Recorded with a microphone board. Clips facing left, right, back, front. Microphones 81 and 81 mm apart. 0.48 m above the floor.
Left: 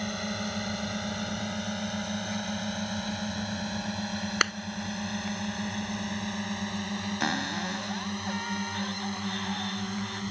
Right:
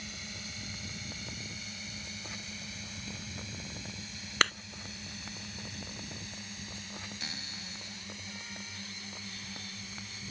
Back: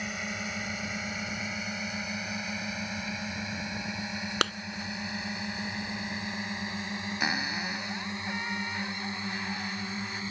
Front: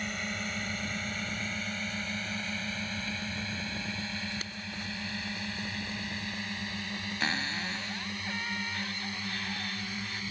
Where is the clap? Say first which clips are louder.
Even, back 14 dB; 175° left.